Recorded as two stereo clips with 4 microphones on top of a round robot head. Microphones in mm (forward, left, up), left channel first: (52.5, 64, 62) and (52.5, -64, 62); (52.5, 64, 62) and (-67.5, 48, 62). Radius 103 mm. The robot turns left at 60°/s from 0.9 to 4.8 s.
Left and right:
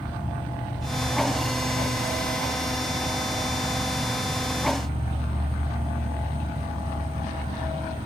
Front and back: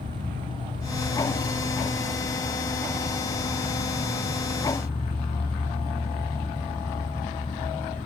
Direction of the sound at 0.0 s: 175° right.